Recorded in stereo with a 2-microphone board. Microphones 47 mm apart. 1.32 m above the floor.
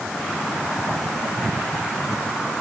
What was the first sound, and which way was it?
Only background noise.